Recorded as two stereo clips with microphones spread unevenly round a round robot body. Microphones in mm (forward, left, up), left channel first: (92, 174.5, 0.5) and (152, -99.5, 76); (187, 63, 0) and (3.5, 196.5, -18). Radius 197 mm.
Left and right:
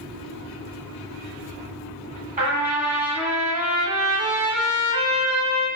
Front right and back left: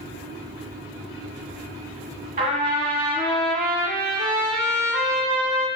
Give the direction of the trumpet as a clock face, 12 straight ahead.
5 o'clock.